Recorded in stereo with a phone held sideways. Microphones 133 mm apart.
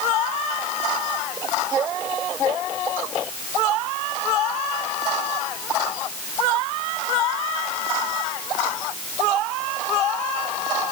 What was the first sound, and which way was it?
Only background noise.